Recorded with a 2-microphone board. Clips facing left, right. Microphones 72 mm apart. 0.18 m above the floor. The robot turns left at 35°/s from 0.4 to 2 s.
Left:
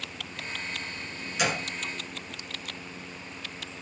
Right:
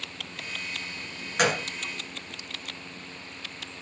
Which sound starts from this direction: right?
A gunshot, at 1.4 s.